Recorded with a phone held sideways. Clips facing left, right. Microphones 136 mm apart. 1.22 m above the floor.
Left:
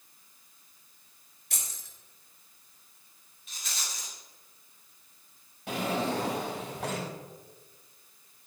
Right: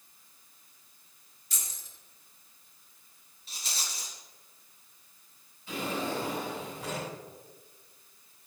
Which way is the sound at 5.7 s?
75° left (ahead or behind).